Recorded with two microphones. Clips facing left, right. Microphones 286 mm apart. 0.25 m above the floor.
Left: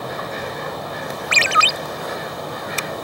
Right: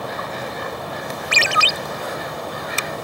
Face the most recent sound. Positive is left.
turn(degrees=-50)  # may be behind; listen again after turning